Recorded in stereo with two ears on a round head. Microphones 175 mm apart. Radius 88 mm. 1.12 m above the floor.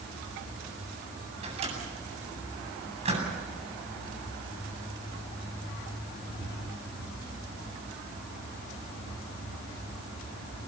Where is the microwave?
30° right (ahead or behind), 8.5 m.